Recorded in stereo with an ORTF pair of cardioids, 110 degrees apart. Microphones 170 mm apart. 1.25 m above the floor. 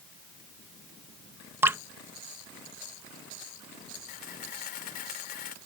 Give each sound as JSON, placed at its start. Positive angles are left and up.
{"t": 1.6, "sound": "dripping", "azimuth_deg": -15}
{"t": 4.1, "sound": "a camera shutter", "azimuth_deg": 65}